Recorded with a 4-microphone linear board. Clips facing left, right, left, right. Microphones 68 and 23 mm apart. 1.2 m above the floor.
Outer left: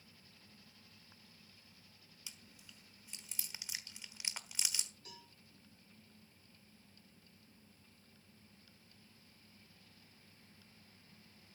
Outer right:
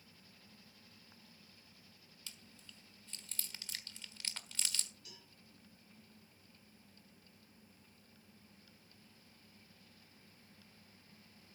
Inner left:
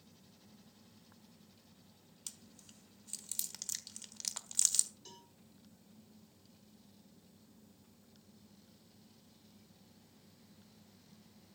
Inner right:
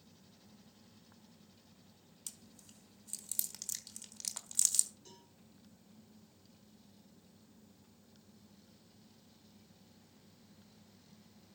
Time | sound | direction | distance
2.3 | chewing | 15° left (ahead or behind) | 1.3 m
5.0 | a cowbell | 45° left (ahead or behind) | 6 m